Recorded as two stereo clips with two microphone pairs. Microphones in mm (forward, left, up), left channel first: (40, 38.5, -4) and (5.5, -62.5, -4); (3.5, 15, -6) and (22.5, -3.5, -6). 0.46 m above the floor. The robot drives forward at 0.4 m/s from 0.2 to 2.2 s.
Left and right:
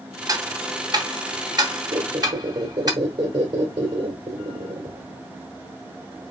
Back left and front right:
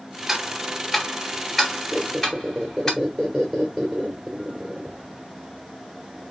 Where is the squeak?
130° right, 2.5 m; by 5.2 s 135° right, 2.5 m.